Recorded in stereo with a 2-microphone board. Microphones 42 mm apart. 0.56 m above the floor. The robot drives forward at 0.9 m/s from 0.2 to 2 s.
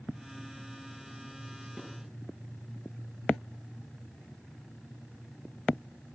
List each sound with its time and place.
1.8 s dishes clattering: 30° right (ahead or behind), 7 m